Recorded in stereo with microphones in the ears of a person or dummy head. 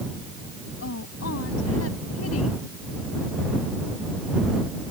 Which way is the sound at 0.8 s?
90° left.